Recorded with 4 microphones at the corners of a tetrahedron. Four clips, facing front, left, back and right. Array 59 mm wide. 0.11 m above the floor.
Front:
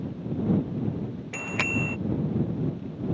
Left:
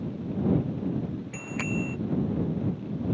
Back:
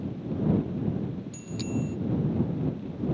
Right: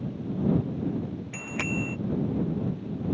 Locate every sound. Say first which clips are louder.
1.3 s a bicycle bell: right 1 dB, front 8 dB; 5° right